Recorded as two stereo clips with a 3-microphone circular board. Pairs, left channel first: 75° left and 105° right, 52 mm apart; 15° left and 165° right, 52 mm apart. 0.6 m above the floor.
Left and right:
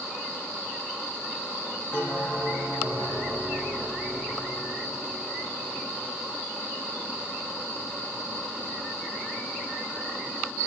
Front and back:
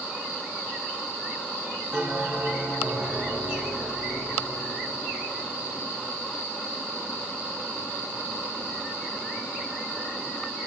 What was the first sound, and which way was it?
A bell, 140° left.